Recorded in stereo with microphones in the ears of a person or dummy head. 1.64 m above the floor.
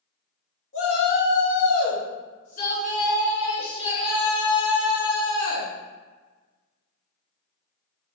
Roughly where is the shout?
Left.